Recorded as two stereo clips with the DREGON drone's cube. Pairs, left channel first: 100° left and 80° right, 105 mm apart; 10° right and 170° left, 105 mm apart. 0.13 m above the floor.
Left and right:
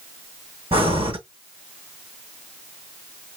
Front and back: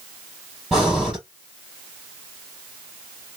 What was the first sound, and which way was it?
Breathing, 105° right.